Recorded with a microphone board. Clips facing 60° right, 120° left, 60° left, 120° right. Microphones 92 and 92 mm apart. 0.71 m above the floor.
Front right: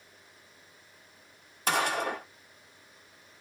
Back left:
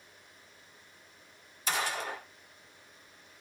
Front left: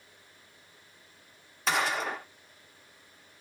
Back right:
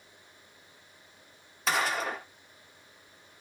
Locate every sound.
1.7 s a gunshot: 30° right, 0.7 m